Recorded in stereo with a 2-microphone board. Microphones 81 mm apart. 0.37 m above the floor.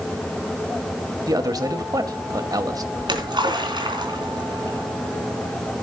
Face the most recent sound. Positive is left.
turn(degrees=-70)  # may be behind; listen again after turning